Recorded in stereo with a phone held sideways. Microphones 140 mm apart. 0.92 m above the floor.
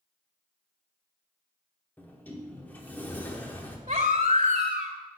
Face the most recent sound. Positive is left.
turn(degrees=-50)  # may be behind; listen again after turning